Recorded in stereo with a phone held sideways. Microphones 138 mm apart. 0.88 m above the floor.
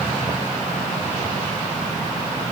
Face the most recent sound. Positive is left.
No sound to turn to.